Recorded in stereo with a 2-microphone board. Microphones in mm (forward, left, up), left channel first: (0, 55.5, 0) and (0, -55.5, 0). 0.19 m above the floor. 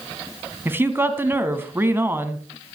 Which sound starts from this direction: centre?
A woman speaking, at 0.7 s.